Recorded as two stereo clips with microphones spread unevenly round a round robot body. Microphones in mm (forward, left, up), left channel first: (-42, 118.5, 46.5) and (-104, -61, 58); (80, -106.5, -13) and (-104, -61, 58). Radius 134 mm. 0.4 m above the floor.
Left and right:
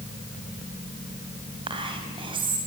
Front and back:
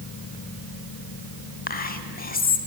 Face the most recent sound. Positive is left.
turn(degrees=-40)